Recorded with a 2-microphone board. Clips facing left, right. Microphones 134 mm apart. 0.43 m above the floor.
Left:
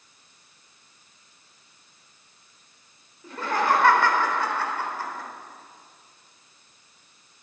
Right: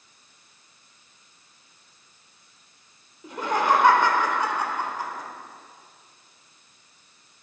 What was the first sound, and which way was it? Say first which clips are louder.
Laughter: right 1 dB; 15° right (ahead or behind).